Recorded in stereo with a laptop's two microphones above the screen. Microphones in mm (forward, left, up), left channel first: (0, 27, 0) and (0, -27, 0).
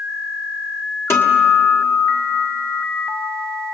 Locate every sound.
1.1 s a guitar: 50° left (ahead or behind), 1.3 m